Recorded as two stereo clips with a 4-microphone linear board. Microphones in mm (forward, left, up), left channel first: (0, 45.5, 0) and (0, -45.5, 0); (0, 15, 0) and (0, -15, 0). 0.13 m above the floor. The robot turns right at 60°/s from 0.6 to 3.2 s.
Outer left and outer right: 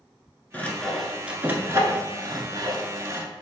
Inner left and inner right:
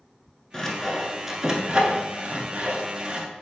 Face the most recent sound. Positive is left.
turn(degrees=-35)  # may be behind; listen again after turning